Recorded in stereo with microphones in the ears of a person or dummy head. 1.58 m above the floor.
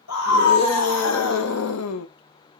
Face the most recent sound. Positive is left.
turn(degrees=65)  # may be behind; listen again after turning